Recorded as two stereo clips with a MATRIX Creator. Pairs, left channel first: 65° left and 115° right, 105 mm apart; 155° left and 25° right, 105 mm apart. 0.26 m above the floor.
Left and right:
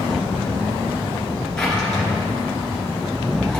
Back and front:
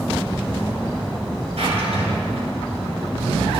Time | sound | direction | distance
1.6 | a drawer | 15° right | 2.5 m